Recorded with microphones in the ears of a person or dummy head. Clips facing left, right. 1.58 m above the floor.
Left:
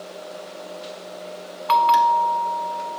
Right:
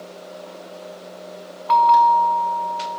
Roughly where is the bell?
Left.